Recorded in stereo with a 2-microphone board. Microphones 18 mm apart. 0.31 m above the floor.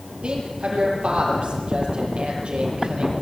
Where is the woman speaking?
75° right (ahead or behind), 7 m.